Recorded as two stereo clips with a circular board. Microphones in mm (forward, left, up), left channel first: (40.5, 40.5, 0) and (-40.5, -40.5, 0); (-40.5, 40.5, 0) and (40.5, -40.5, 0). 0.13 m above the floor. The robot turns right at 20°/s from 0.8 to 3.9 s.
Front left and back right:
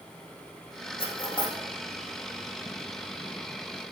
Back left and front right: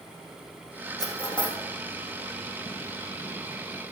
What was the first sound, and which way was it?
Cutlery clinking, 80° left.